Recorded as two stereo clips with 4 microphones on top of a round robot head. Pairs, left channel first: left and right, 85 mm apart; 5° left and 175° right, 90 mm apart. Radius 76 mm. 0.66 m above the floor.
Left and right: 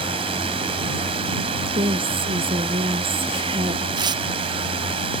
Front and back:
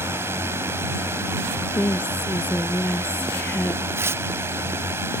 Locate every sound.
0.0 s a drone: 110° right
1.7 s a woman speaking: 70° right
4.0 s tearing paper: 115° right